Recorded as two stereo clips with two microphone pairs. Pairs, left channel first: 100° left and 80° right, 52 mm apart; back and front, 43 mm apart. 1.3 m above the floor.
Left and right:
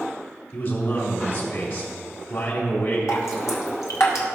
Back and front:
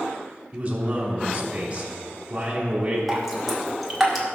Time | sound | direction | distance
0.5 | a man speaking | 65° left | 3.5 m
3.1 | dripping | 90° left | 1.8 m